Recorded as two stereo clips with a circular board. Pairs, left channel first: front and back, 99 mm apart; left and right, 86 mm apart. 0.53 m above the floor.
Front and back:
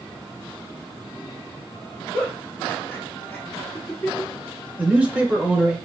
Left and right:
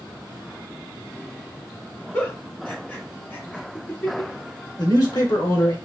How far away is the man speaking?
About 1.4 m.